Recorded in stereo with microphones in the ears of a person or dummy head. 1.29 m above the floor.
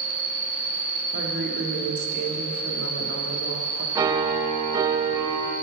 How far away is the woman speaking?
About 1.2 m.